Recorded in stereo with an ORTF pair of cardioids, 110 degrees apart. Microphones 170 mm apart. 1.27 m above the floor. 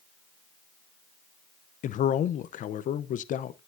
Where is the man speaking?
50° left, 0.7 m.